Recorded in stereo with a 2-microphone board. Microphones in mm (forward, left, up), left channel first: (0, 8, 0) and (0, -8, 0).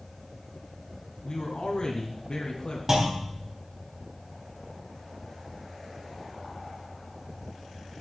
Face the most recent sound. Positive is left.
turn(degrees=-30)  # may be behind; listen again after turning